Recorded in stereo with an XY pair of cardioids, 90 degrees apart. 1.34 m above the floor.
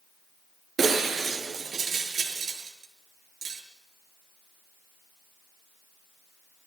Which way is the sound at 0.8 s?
55° right.